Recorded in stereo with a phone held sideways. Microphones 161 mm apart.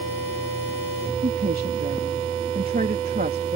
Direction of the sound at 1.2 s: 70° right (ahead or behind).